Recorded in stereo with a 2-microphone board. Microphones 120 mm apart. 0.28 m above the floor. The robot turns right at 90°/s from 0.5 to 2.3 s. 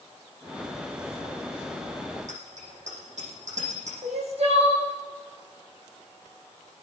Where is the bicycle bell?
80° right, 9.5 m; by 3.9 s 75° right (ahead or behind), 9.5 m.